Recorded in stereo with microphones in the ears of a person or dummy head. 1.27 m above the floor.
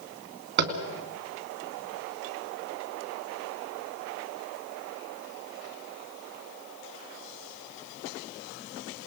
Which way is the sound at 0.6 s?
50° right (ahead or behind).